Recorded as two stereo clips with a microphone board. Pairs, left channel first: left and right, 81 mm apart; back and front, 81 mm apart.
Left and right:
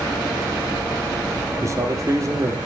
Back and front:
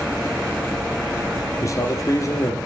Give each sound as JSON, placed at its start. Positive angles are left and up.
{"t": 1.6, "sound": "a man speaking", "azimuth_deg": -135, "distance_m": 3.5}